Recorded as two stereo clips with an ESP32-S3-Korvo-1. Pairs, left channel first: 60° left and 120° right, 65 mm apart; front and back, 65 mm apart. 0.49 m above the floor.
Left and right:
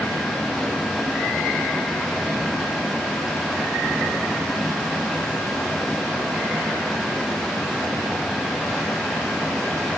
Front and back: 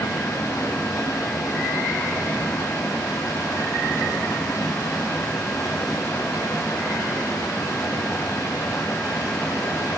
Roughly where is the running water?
Ahead right.